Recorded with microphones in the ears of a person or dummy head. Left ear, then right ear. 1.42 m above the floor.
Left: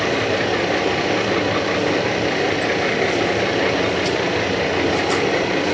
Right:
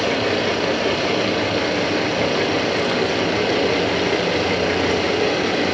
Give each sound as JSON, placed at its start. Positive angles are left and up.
{"t": 0.0, "sound": "a machine running", "side_deg": -10, "distance_m": 5.0}